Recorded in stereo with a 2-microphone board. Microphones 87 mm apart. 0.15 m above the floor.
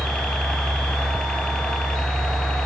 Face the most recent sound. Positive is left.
turn(degrees=10)  # may be behind; listen again after turning